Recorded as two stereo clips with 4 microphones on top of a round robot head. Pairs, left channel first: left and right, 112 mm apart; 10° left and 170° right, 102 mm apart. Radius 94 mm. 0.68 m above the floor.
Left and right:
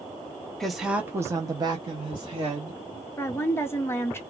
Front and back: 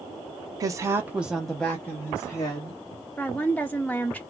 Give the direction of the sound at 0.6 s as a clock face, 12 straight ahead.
6 o'clock.